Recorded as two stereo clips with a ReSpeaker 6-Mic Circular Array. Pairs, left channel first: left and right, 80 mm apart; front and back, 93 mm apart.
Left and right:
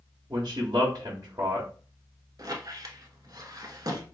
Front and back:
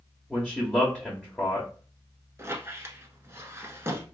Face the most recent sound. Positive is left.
turn(degrees=-120)